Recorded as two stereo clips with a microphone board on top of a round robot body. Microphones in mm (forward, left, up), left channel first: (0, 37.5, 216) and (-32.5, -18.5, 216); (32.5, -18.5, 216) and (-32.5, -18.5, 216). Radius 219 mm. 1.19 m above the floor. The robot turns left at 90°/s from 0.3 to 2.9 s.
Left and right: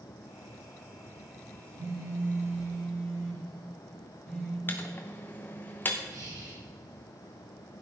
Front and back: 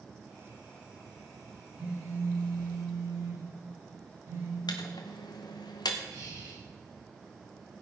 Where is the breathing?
145° right, 5 m.